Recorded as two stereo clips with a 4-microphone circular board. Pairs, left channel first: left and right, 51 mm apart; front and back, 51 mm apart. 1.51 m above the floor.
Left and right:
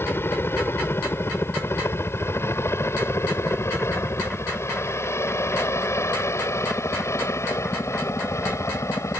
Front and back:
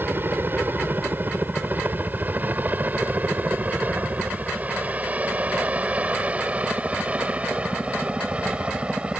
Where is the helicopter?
130° left; by 9.2 s 110° left.